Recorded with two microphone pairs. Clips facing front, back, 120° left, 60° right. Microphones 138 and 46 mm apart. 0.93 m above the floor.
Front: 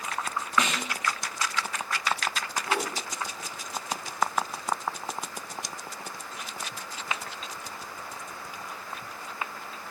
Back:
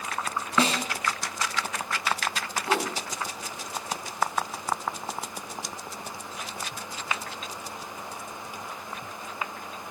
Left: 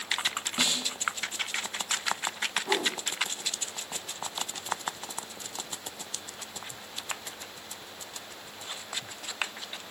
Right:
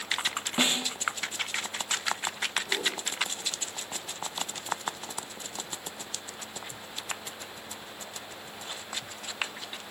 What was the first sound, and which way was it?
A snare drum, 120° right.